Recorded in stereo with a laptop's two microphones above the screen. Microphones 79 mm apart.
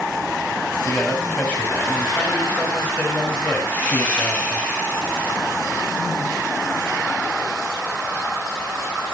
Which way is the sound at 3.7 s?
25° left (ahead or behind).